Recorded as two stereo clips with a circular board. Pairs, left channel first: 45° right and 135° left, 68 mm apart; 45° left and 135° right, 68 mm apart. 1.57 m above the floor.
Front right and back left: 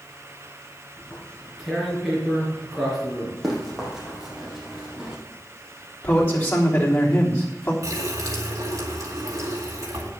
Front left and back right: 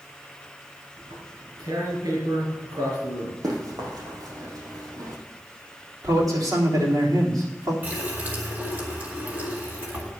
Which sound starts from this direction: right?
A man speaking, at 6.0 s.